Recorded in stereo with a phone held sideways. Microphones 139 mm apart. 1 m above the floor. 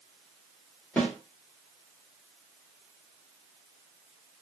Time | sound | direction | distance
1.0 | a snare drum | 10° left (ahead or behind) | 1.4 m